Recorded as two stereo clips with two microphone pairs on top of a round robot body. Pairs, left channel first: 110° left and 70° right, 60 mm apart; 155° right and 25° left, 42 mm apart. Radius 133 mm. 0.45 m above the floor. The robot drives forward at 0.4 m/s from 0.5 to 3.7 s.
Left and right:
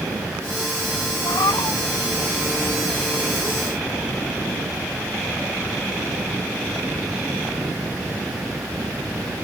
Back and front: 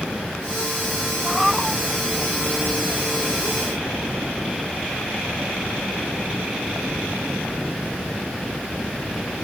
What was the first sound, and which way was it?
A cat meowing, 115° left.